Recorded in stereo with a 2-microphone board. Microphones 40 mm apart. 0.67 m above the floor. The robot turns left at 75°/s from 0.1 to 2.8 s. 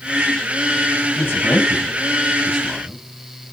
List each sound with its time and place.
1.2 s a man speaking: 60° left (ahead or behind), 5.5 m; by 3.0 s 5° right (ahead or behind), 5.5 m